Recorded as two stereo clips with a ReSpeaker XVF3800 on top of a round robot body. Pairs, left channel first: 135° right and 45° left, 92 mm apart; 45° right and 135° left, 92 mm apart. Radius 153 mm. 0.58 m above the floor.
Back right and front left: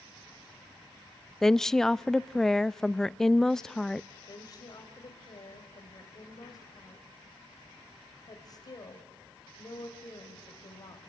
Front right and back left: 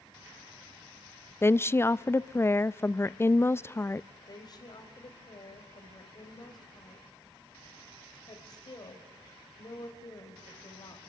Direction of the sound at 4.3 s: 90° right.